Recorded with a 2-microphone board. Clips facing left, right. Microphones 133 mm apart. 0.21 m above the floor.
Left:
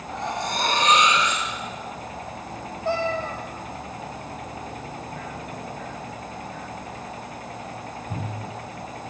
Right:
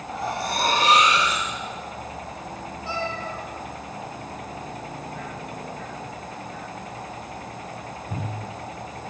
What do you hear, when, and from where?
0.1 s cutlery clinking: 5° right (ahead or behind), 6 m
2.9 s a cat meowing: 55° left (ahead or behind), 3 m